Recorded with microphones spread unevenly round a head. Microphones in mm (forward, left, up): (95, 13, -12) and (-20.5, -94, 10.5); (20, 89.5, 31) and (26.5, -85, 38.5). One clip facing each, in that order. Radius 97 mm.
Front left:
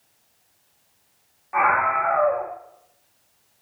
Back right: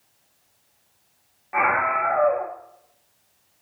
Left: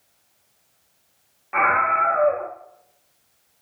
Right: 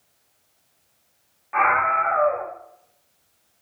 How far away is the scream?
About 1.7 m.